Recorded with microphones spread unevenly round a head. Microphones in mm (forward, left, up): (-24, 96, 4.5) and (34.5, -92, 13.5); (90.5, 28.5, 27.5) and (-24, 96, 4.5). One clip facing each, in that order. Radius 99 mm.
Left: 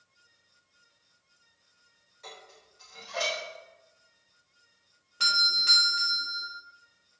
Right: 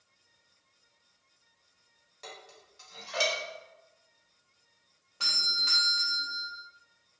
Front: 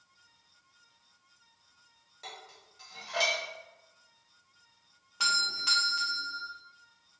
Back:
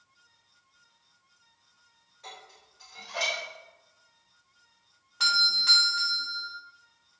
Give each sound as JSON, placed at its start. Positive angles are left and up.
{"t": 2.2, "sound": "dishes clattering", "azimuth_deg": -60, "distance_m": 1.9}
{"t": 5.2, "sound": "a doorbell", "azimuth_deg": 55, "distance_m": 1.0}